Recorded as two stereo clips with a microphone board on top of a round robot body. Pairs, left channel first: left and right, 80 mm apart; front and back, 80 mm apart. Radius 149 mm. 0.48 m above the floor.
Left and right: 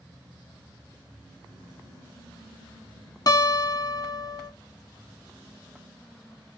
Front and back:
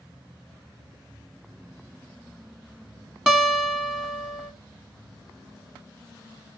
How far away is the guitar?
About 1.3 m.